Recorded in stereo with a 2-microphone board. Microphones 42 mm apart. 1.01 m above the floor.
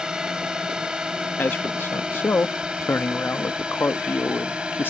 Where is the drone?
20° right (ahead or behind); by 4.9 s 25° right (ahead or behind).